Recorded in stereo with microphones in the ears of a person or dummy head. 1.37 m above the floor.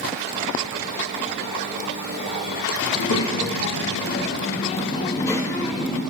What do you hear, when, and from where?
2.9 s a child speaking: 75° left (ahead or behind), 1.6 m; by 6.0 s centre (ahead or behind), 1.3 m